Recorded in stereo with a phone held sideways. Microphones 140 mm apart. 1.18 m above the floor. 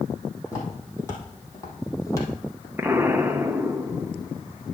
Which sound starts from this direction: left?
Footsteps, at 0.5 s.